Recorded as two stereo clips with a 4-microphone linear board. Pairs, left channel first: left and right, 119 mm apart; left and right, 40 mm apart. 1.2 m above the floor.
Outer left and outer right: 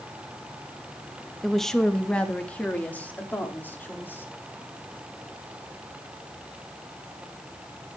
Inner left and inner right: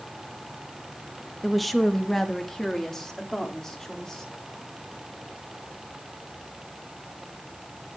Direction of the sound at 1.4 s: Centre (ahead or behind).